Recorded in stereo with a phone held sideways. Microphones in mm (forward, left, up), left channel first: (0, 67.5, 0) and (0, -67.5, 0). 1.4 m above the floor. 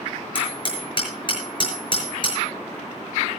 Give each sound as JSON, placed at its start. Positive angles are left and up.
{"t": 0.3, "sound": "hammering", "side_deg": 35, "distance_m": 6.0}